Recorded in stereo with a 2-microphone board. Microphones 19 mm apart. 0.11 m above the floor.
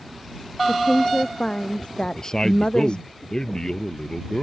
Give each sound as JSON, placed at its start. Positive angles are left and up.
{"t": 0.7, "sound": "a woman speaking", "side_deg": 50}
{"t": 2.0, "sound": "a man speaking", "side_deg": 30}